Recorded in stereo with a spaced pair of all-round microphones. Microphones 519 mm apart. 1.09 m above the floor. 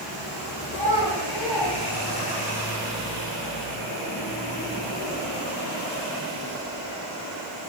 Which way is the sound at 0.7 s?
60° left (ahead or behind).